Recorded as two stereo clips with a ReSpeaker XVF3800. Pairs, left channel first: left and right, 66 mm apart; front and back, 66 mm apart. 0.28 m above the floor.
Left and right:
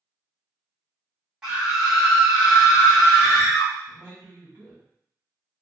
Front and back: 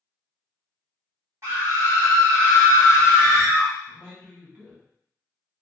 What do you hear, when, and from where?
1.4 s a scream: 165° right, 1.9 m
3.9 s a man speaking: 130° right, 1.9 m